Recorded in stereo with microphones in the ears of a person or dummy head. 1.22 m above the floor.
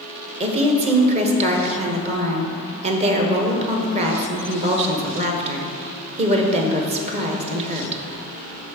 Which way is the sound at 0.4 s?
35° right (ahead or behind).